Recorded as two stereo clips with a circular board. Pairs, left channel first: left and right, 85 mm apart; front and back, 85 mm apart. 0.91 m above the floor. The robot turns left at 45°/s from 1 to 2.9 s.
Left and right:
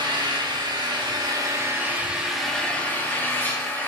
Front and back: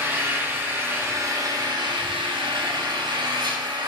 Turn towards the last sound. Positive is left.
turn(degrees=160)